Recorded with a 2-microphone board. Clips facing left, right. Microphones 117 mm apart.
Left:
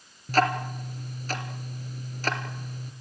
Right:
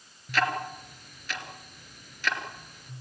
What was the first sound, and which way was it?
Ticking, 40° left (ahead or behind).